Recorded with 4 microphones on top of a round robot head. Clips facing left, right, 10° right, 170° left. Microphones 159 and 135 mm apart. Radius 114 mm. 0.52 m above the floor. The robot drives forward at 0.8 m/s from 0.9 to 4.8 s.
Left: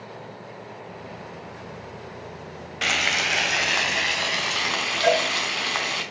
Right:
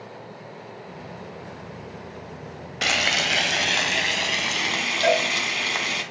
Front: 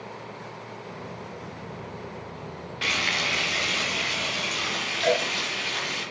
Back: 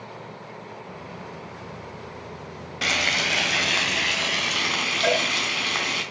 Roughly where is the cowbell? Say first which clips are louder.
Even, even; behind right.